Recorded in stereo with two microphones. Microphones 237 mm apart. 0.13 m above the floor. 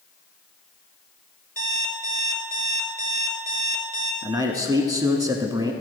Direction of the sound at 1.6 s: 35° left (ahead or behind).